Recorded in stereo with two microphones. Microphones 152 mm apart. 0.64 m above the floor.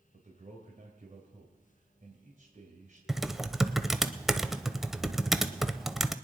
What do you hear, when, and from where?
0.1 s a man speaking: 55° right (ahead or behind), 2.5 m
3.1 s typing on a keyboard: centre (ahead or behind), 0.6 m